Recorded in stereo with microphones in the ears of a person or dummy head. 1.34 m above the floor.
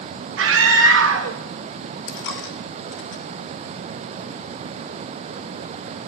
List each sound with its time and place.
0.4 s a scream: 70° right (ahead or behind), 1.8 m
2.1 s a dropped coin: 60° left (ahead or behind), 1.3 m